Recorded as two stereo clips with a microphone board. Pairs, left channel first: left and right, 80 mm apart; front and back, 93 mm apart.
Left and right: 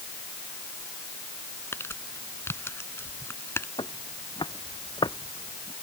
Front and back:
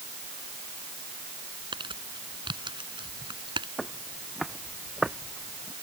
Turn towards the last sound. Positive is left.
turn(degrees=105)